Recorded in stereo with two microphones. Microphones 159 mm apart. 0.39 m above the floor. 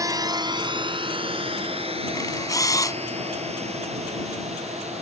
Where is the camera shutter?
20° left (ahead or behind).